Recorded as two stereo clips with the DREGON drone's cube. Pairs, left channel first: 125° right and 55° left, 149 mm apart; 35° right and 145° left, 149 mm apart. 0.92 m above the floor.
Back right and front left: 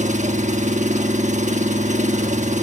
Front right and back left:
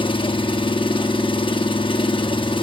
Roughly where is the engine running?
Ahead.